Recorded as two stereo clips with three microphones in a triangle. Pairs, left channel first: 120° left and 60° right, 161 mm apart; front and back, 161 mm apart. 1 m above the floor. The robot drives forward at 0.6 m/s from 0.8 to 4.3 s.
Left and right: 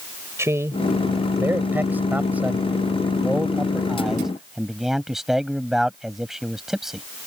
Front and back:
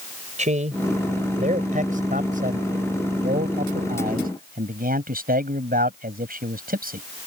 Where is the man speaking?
135° right; by 7.0 s 150° right.